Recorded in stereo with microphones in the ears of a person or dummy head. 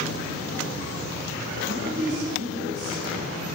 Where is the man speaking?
55° right (ahead or behind), 7.5 m.